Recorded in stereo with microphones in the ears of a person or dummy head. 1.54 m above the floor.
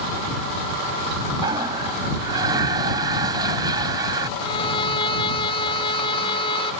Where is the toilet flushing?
20° right (ahead or behind).